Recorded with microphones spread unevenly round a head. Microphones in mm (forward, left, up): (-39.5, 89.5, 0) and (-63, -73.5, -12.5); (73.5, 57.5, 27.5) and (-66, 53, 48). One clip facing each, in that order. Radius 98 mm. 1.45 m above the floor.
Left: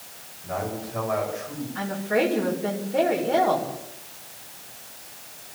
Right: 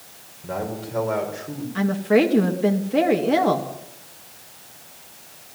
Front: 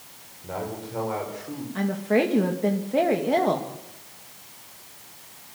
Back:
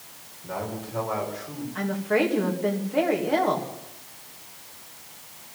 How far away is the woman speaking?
About 2.5 m.